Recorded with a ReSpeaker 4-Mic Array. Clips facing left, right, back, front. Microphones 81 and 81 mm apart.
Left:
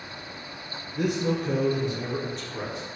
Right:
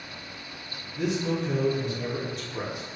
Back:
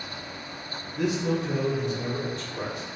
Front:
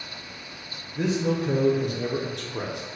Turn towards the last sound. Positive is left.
turn(degrees=-20)